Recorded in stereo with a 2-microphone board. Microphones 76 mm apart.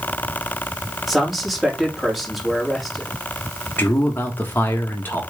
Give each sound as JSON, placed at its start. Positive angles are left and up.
{"t": 1.1, "sound": "a man speaking", "side_deg": 0, "distance_m": 3.5}
{"t": 3.8, "sound": "a man speaking", "side_deg": 25, "distance_m": 1.7}